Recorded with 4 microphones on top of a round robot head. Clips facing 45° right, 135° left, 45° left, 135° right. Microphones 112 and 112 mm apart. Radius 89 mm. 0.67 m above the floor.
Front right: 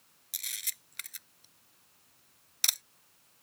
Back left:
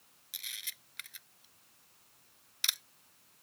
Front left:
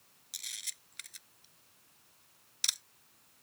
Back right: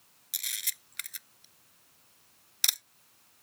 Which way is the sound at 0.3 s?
95° right.